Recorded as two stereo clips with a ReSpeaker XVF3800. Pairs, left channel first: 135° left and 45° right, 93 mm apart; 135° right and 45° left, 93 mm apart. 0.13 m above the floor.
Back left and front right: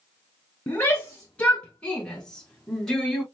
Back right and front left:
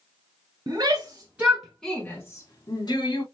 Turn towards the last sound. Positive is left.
turn(degrees=-135)